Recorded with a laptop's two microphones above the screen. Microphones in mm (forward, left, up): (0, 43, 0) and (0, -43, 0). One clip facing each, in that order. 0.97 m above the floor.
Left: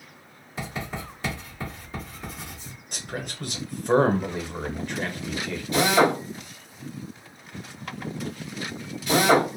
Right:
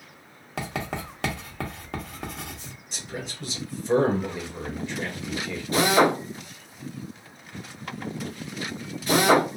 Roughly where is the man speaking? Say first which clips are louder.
Left 2 dB; left.